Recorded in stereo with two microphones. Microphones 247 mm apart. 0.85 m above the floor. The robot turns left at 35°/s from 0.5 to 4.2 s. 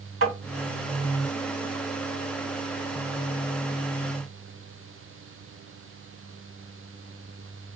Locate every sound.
0.2 s tapping: 60° right (ahead or behind), 2.5 m